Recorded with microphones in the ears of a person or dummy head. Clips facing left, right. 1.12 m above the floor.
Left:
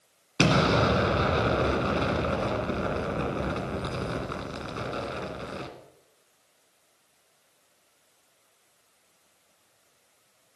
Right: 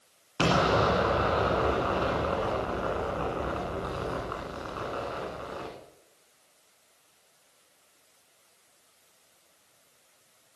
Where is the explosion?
35° left (ahead or behind), 1.8 m.